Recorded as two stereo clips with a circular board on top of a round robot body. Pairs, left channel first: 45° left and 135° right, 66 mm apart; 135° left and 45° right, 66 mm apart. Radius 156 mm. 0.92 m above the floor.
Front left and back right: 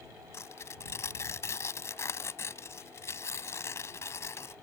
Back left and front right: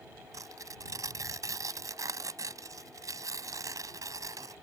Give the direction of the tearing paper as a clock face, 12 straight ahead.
12 o'clock.